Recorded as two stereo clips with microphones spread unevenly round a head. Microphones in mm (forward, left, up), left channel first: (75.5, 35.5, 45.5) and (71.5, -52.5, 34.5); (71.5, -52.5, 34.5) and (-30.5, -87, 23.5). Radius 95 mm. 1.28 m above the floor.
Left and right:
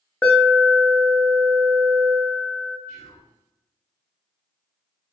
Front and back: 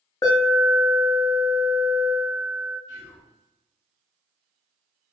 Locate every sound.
0.2 s an alarm: 10° left, 0.7 m
2.9 s whispering: 30° right, 1.0 m